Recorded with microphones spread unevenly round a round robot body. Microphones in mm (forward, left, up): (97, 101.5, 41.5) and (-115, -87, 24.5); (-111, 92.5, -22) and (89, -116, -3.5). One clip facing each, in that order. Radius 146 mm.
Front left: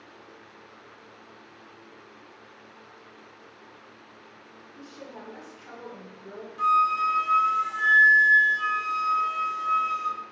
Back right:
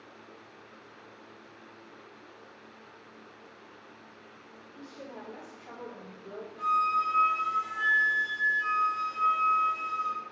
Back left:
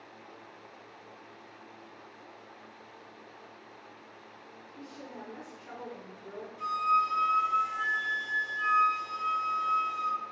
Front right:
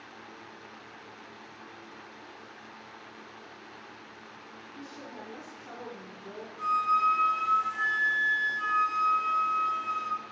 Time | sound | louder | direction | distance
4.8 | a woman speaking | front left 1 dB, even | 15° right | 2 m
6.6 | a flute | front left 4 dB, front right 2 dB | 30° left | 1.3 m